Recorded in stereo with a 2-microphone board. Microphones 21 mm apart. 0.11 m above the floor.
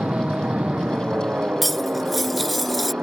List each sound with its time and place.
0.0 s an aircraft: 75° right (ahead or behind)
1.6 s cutlery clinking: 5° left (ahead or behind)